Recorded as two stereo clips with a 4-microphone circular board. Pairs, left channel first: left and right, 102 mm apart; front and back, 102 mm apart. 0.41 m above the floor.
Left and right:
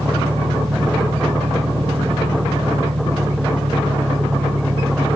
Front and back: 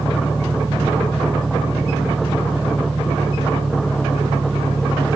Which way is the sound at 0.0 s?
100° right.